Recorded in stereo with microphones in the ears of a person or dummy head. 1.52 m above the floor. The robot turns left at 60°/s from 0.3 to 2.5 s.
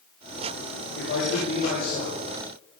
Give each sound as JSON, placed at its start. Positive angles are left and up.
{"t": 0.9, "sound": "a man speaking", "azimuth_deg": 110, "distance_m": 7.5}